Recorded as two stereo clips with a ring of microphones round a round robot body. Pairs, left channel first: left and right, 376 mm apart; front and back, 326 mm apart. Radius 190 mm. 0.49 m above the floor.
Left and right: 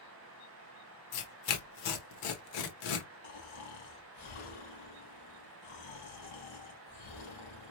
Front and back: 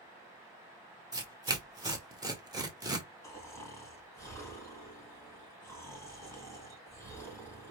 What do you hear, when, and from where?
1.1 s tearing paper: 100° left, 1.2 m
3.2 s snoring: 80° left, 2.5 m